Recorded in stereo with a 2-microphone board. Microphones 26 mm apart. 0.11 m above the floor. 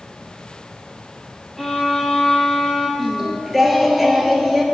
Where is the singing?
Centre (ahead or behind), 0.8 m.